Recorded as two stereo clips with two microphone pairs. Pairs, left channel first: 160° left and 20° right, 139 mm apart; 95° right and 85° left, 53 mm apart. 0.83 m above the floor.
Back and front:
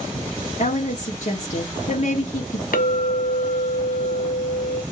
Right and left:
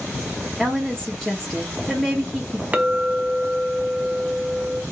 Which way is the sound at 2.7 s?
150° left.